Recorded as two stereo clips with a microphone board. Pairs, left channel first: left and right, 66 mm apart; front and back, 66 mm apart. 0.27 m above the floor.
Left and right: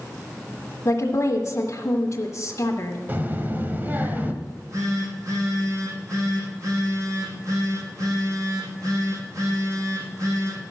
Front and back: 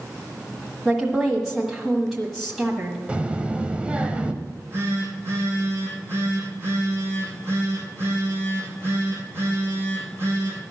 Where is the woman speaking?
100° left, 1.5 m.